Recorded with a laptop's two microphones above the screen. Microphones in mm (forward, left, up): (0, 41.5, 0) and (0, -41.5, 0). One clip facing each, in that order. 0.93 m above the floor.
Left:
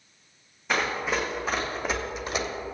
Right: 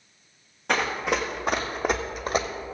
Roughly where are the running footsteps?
Right.